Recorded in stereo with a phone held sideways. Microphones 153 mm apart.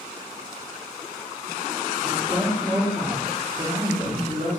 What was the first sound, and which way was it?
A woman speaking, 45° right (ahead or behind).